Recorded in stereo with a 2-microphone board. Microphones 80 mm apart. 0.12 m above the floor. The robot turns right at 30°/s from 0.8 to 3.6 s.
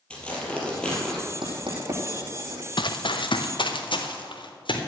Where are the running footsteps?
70° left (ahead or behind), 1.0 m; by 4.8 s 85° left, 3.5 m.